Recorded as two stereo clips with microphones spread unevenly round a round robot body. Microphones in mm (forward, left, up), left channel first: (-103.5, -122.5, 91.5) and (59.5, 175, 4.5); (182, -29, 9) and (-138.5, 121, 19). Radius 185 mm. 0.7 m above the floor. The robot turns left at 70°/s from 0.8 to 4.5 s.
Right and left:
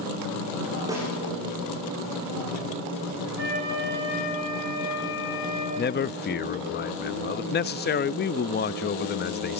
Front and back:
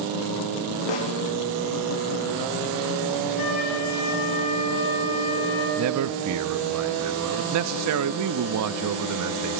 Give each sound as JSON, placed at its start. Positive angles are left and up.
{"t": 0.9, "sound": "a snare drum", "azimuth_deg": -20, "distance_m": 8.0}
{"t": 3.4, "sound": "a flute", "azimuth_deg": 5, "distance_m": 6.0}
{"t": 5.8, "sound": "a man speaking", "azimuth_deg": 175, "distance_m": 0.5}